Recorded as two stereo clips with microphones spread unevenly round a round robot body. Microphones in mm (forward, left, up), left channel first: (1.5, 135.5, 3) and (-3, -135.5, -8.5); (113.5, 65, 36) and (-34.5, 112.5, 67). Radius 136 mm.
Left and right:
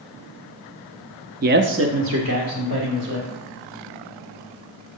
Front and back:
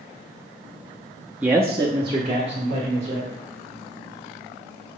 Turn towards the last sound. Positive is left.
turn(degrees=-135)